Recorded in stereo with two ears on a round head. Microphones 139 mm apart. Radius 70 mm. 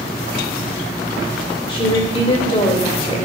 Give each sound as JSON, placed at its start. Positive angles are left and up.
{"t": 1.7, "sound": "a woman speaking", "side_deg": 35, "distance_m": 2.5}